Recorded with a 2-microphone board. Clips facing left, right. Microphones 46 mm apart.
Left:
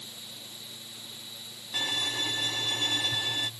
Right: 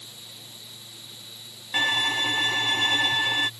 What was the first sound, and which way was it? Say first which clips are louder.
A violin: right 8 dB; 45° right (ahead or behind).